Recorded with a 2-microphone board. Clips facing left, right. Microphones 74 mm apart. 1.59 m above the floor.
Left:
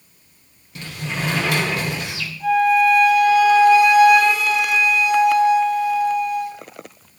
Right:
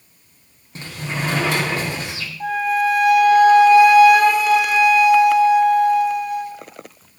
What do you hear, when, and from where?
0.8 s a sliding door: 30° right (ahead or behind), 3.5 m
2.4 s a flute: 50° right (ahead or behind), 6 m